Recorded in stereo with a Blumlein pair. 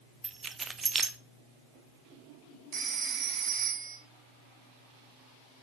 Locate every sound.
0.2 s keys jangling: 15° right, 0.5 m
2.7 s a phone ringing: 40° right, 1.4 m